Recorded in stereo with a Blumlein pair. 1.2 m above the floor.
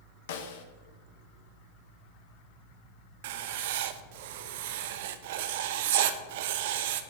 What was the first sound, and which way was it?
A snare drum, 55° left.